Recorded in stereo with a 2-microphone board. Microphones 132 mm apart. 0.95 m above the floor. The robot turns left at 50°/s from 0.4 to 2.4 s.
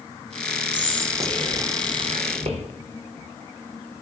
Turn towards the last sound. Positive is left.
turn(degrees=-50)  # may be behind; listen again after turning